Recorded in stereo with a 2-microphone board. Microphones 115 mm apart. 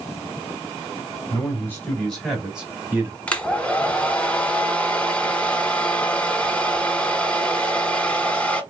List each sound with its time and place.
1.3 s a man speaking: 25° left (ahead or behind), 1.3 m; by 3.2 s 20° right (ahead or behind), 1.2 m
3.3 s a hair dryer: 10° left (ahead or behind), 0.7 m